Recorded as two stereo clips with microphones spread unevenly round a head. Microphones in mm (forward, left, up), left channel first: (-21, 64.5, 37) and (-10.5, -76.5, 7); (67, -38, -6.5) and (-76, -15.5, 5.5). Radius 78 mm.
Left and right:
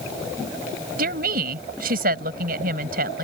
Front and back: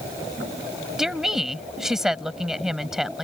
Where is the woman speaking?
105° right.